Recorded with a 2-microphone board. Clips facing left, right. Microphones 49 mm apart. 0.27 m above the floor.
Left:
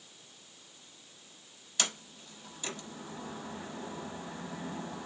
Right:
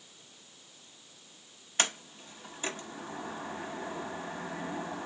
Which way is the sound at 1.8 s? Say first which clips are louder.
Right 4 dB; 40° right (ahead or behind).